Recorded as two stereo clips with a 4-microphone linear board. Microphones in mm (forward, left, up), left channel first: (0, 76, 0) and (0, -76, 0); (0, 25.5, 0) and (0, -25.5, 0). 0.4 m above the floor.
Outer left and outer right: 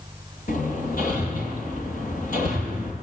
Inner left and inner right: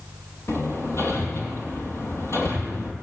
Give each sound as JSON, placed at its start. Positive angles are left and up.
{"t": 0.5, "sound": "hammering", "side_deg": 70, "distance_m": 8.0}